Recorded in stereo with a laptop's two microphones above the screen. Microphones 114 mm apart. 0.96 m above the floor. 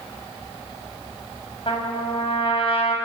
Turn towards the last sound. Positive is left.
turn(degrees=55)  # may be behind; listen again after turning